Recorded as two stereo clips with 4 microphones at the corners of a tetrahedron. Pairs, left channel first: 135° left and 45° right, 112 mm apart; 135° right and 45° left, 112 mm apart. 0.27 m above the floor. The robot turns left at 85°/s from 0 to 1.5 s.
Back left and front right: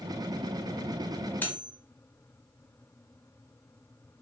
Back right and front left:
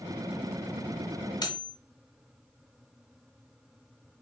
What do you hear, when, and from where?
1.4 s cutlery clinking: 160° right, 0.8 m; by 1.7 s 170° right, 0.8 m